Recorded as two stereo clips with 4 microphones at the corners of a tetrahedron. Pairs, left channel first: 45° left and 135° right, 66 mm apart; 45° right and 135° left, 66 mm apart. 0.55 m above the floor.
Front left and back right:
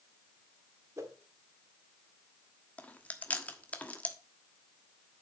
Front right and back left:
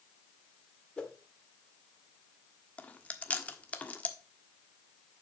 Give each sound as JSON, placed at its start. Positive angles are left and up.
{"t": 1.0, "sound": "a whoosh", "azimuth_deg": -115, "distance_m": 1.9}
{"t": 2.8, "sound": "chewing", "azimuth_deg": 0, "distance_m": 1.2}